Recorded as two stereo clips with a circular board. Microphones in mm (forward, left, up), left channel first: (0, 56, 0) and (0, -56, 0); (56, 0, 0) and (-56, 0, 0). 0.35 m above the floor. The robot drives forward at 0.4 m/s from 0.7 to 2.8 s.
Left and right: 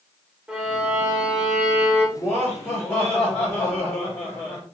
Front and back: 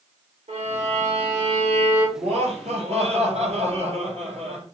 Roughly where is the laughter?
Behind.